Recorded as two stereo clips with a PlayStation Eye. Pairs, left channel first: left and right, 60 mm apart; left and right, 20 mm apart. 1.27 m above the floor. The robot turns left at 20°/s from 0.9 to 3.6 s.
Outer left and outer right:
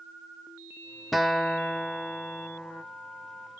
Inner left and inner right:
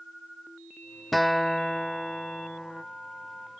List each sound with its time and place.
1.1 s a guitar: centre (ahead or behind), 0.5 m; by 2.8 s 10° left (ahead or behind), 0.5 m